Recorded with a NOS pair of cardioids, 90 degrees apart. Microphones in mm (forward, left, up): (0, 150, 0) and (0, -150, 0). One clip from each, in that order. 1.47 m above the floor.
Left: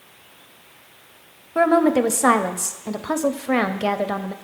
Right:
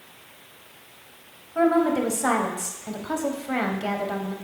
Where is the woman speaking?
35° left, 0.6 m.